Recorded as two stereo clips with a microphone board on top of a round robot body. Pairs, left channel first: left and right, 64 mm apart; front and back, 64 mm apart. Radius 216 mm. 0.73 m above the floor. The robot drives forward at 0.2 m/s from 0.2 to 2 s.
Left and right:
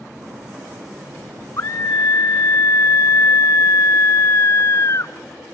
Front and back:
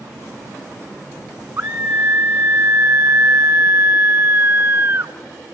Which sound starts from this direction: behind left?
A scream, at 1.6 s.